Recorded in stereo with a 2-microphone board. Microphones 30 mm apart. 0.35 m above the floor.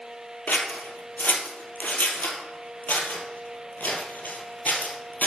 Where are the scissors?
85° left, 1.8 m.